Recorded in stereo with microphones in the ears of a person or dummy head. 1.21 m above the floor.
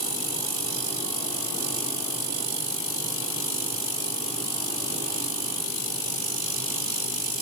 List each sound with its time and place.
Only background noise.